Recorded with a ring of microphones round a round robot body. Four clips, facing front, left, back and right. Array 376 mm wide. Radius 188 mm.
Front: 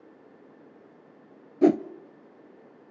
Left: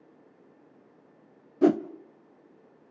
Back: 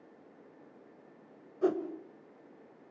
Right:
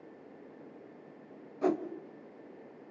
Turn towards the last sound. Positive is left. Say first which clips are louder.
# left 8 dB, front 9 dB
turn(degrees=35)